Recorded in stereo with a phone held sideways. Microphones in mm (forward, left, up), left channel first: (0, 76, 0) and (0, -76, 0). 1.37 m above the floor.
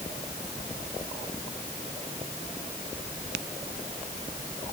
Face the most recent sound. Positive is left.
No sound to turn to.